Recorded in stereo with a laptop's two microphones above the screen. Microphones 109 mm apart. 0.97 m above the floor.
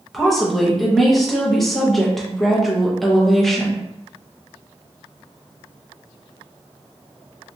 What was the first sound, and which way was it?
A woman speaking, centre (ahead or behind).